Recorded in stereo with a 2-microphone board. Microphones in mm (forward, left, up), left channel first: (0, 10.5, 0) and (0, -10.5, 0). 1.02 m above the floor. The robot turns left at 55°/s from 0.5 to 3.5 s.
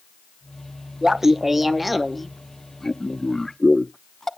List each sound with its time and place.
1.0 s laughter: 20° right (ahead or behind), 0.7 m; by 4.3 s 25° left (ahead or behind), 0.7 m